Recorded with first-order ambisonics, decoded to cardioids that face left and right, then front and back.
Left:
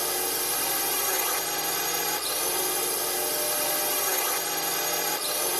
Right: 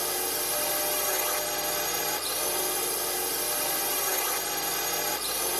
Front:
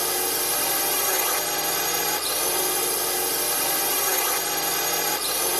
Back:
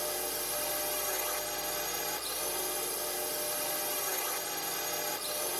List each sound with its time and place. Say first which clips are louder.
0.0 s a drone: left 2 dB, front 10 dB; 10° left